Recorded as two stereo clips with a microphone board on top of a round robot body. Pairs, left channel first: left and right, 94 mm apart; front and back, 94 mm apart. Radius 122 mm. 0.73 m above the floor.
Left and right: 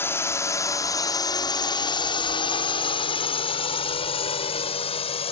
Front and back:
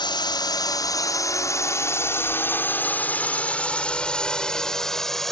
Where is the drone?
30° left; by 5.3 s 85° left.